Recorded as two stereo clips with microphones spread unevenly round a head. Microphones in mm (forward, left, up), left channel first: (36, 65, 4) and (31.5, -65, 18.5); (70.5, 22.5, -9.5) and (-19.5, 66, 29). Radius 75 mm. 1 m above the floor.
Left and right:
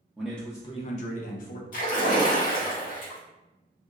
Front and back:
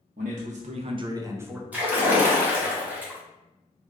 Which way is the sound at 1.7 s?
75° left.